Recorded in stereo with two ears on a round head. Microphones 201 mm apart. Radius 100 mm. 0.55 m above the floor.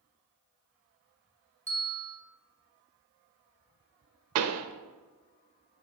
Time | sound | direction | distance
1.7 | a bell | 15° right (ahead or behind) | 3 m
4.3 | a pop | 75° right (ahead or behind) | 0.8 m